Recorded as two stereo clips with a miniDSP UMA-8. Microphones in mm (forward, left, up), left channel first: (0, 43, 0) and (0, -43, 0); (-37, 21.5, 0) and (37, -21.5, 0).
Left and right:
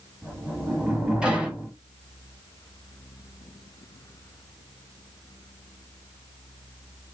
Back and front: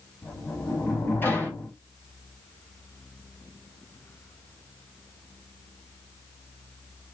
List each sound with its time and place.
0.2 s a sliding door: 160° right, 1.1 m